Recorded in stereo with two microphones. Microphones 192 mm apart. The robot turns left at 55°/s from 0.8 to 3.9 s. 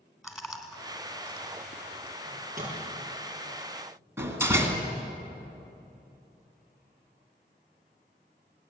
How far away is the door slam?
About 2 m.